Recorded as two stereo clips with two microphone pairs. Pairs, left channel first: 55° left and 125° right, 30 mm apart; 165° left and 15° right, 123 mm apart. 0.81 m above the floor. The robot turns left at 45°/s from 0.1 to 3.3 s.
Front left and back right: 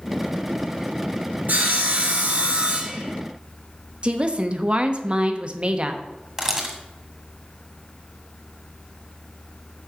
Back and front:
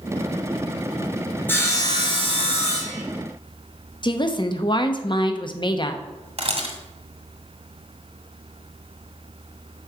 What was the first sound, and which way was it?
Sawing, 125° right.